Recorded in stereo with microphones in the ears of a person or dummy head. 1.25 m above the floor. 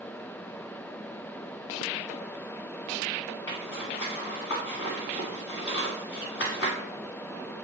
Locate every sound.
3.5 s a zipper: 50° left (ahead or behind), 1.8 m